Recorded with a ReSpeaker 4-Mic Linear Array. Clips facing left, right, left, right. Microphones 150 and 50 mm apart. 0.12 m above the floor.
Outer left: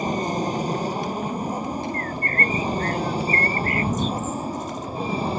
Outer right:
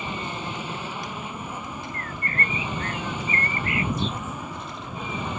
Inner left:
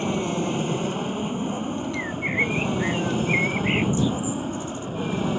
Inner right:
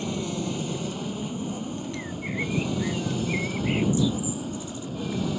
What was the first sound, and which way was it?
An aircraft, 40° left (ahead or behind).